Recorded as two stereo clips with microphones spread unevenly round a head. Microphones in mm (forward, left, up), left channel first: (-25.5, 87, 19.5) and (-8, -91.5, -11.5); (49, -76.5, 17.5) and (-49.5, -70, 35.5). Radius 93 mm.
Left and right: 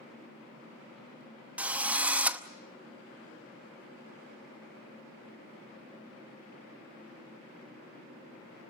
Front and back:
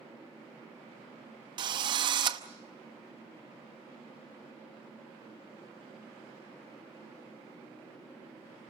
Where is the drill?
175° right, 0.8 m.